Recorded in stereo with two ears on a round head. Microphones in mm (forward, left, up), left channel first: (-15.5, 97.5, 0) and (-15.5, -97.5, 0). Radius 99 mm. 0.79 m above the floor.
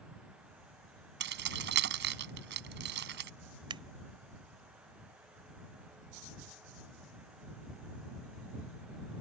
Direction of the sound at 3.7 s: 20° right (ahead or behind).